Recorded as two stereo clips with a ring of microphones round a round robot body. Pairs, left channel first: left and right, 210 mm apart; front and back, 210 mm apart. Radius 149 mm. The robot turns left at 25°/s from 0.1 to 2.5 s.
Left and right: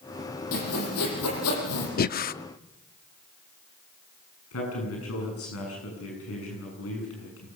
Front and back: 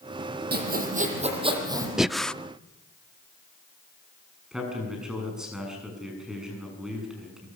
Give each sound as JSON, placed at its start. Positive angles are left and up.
{"t": 0.5, "sound": "sawing", "azimuth_deg": 140, "distance_m": 7.0}
{"t": 2.0, "sound": "breathing", "azimuth_deg": 95, "distance_m": 0.7}
{"t": 4.5, "sound": "a man speaking", "azimuth_deg": 95, "distance_m": 7.0}